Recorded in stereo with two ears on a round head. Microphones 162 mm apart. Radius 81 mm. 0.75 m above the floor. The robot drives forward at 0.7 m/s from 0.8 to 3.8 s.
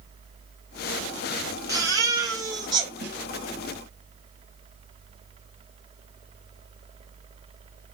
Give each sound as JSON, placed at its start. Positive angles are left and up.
{"t": 1.7, "sound": "a baby crying", "side_deg": -20, "distance_m": 3.0}
{"t": 3.0, "sound": "a snare drum", "side_deg": -65, "distance_m": 3.5}